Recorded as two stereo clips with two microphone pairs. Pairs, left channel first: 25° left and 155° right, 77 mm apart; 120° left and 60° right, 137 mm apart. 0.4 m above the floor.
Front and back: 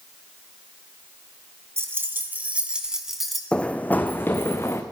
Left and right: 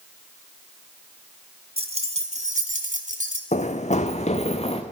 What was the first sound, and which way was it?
Keys jangling, 100° right.